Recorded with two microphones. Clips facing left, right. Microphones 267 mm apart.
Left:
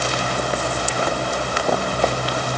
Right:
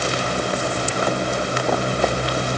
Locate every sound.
Only background noise.